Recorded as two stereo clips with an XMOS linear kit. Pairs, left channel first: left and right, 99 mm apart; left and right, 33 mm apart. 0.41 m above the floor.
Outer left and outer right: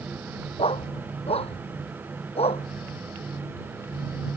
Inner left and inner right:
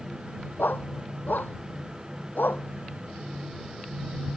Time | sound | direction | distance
0.6 | a dog barking | 80° left | ?